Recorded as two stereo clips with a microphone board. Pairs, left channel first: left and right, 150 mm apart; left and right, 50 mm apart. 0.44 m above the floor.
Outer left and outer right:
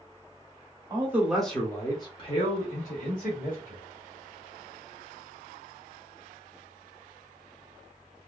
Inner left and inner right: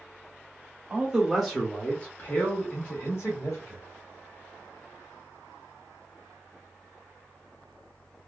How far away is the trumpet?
I don't hear a trumpet.